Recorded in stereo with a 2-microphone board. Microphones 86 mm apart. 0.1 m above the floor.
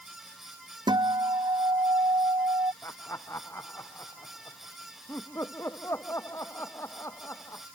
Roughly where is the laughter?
Left.